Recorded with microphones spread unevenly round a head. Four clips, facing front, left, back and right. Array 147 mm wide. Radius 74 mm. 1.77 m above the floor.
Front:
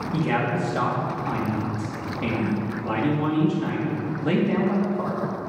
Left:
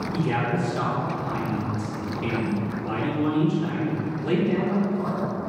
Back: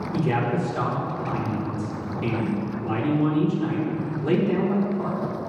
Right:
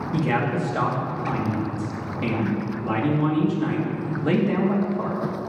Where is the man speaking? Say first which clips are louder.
Right 3 dB, even; 50° right, 3 m.